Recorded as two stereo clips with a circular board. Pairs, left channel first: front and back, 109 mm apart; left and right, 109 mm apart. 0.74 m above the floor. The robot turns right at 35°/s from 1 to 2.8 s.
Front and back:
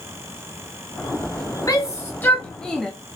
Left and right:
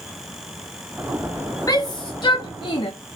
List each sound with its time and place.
1.7 s a shout: 45° left, 0.8 m; by 2.9 s 85° left, 0.8 m